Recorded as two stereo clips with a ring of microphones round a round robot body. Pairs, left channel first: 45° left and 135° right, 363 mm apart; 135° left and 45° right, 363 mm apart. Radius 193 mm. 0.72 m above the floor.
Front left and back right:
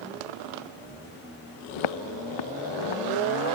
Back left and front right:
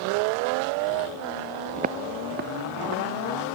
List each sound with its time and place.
1.8 s footsteps: 25° left; by 3.0 s 15° left